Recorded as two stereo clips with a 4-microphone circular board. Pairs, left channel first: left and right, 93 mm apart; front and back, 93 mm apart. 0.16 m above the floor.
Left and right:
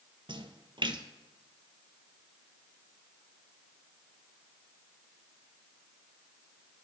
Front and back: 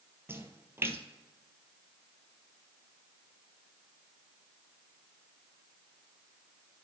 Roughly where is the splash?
Behind right.